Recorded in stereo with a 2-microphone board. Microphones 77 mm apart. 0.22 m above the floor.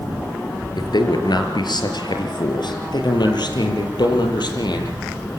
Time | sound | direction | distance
0.8 | a man speaking | 70° left (ahead or behind) | 3.5 m